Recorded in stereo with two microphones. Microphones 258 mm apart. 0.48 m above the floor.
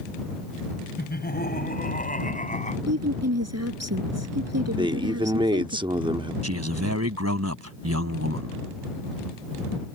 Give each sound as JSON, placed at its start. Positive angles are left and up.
{"t": 1.0, "sound": "laughter", "side_deg": 40}
{"t": 2.9, "sound": "a woman speaking", "side_deg": -75}
{"t": 4.8, "sound": "a man speaking", "side_deg": -20}
{"t": 6.4, "sound": "a man speaking", "side_deg": -75}